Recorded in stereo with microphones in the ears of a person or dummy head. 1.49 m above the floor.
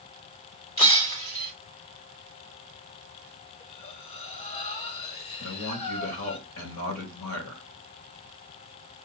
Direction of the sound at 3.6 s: 40° left (ahead or behind).